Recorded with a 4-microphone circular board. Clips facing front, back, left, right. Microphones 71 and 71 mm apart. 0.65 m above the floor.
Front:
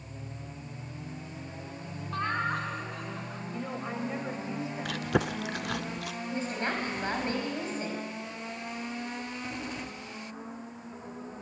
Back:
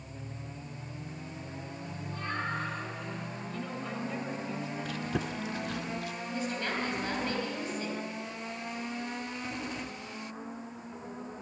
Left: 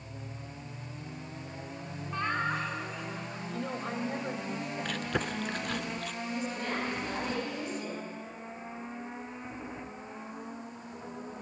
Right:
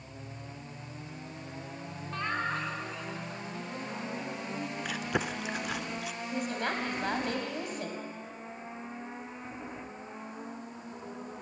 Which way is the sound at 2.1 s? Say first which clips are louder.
Front 5 dB, left 2 dB; 10° left.